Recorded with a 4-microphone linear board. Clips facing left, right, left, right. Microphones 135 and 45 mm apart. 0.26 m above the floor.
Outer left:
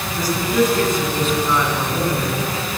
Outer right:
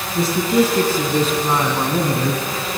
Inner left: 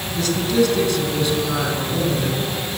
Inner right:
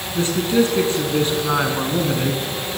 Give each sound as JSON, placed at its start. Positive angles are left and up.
{"t": 0.1, "sound": "a man speaking", "side_deg": -25, "distance_m": 3.0}